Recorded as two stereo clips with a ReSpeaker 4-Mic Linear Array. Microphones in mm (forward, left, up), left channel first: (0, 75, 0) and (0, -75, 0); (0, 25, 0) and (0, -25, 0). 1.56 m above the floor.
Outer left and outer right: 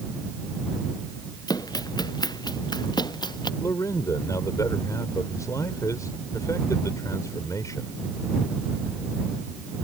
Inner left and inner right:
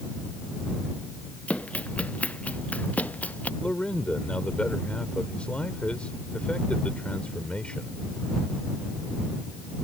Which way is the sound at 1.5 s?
25° left (ahead or behind).